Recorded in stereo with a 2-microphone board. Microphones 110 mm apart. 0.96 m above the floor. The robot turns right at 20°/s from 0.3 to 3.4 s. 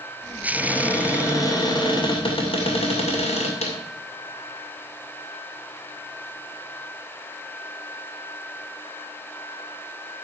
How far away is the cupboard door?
About 2.5 m.